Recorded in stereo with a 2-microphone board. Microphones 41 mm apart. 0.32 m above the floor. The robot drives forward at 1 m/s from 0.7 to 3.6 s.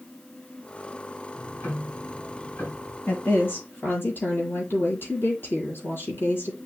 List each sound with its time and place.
1.3 s ticking: 65° left (ahead or behind), 3.5 m; by 3.0 s 50° left (ahead or behind), 4.5 m
3.1 s a woman speaking: 65° left (ahead or behind), 6.5 m; by 6.6 s 60° left (ahead or behind), 7 m